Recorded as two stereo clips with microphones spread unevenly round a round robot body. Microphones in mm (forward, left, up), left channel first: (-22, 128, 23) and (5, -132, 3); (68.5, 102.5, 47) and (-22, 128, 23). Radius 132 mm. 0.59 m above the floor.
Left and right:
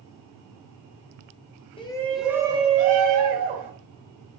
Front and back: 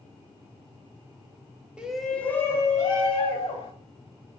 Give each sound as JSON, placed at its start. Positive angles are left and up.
{"t": 1.8, "sound": "a shout", "azimuth_deg": 150, "distance_m": 0.7}